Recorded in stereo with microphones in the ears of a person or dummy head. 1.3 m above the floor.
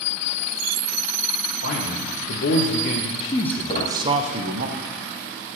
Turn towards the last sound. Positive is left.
turn(degrees=45)  # may be behind; listen again after turning